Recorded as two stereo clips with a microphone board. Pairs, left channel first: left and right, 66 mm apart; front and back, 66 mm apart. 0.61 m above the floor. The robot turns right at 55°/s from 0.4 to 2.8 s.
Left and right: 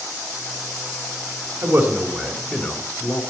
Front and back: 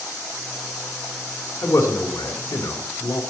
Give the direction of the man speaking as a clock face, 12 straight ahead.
2 o'clock.